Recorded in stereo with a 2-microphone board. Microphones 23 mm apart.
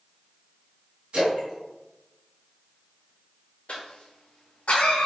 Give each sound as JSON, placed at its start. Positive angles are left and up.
{"t": 1.1, "sound": "a splash", "side_deg": -65, "distance_m": 1.6}
{"t": 3.7, "sound": "a cough", "side_deg": 65, "distance_m": 0.5}